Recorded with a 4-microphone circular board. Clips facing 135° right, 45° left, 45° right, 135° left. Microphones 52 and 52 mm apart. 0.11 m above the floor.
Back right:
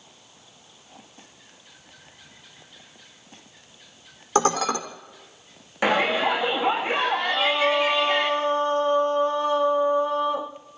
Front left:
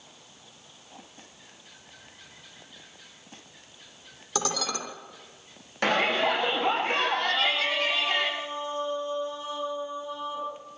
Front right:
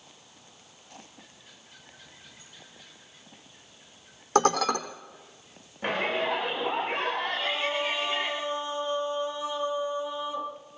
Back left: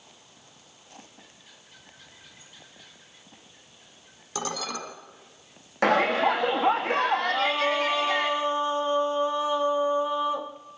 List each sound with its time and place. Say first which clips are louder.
4.3 s dishes clattering: back right 9 dB, front right 9 dB; 85° right, 3.5 m
5.8 s a shout: back right 3 dB, back left 7 dB; 145° left, 5.5 m
7.3 s singing: back right 5 dB, back left 5 dB; 170° right, 2.5 m